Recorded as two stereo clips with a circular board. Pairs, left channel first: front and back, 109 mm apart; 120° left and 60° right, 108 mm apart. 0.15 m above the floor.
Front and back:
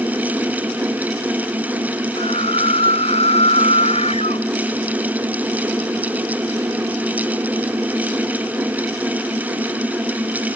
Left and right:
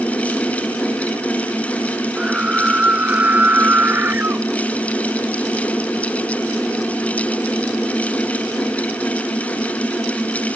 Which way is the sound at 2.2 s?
20° left.